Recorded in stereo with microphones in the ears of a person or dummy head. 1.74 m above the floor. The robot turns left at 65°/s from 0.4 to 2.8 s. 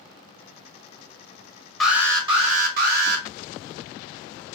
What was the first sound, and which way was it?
An alarm, 5° left.